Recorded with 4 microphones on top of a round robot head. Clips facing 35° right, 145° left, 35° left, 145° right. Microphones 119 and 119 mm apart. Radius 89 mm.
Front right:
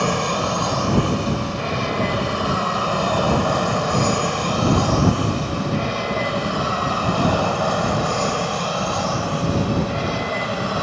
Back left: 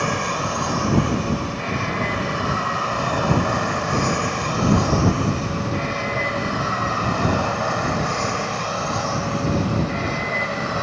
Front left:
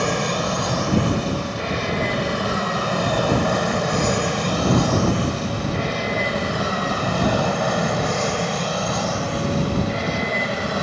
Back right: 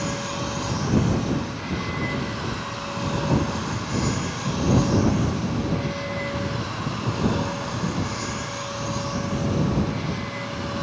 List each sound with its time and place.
0.0 s an aircraft: 35° left; by 10.8 s 40° left